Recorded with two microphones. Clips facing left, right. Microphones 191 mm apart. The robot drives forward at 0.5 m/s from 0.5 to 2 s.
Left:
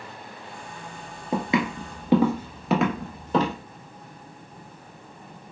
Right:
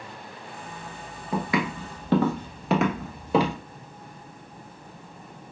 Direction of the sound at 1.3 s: 25° left (ahead or behind).